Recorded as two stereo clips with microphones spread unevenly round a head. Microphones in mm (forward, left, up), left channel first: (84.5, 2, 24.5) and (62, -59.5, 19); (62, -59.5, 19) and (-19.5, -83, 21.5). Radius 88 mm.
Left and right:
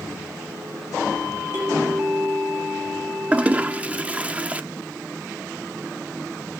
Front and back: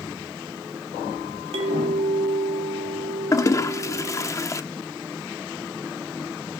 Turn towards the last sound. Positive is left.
turn(degrees=-40)